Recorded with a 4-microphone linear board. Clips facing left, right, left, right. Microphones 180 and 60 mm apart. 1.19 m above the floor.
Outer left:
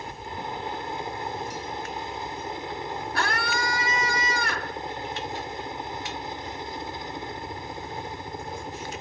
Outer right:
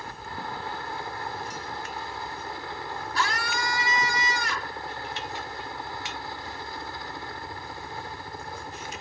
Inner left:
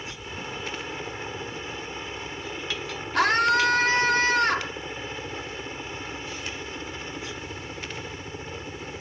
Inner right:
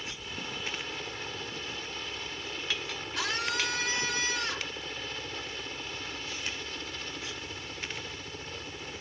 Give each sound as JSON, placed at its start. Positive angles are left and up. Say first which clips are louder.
{"t": 0.0, "sound": "a helicopter", "louder": "outer left 2 dB, inner left 4 dB", "side_deg": 20}
{"t": 3.1, "sound": "a scream", "louder": "outer left 1 dB, inner left 12 dB", "side_deg": 55}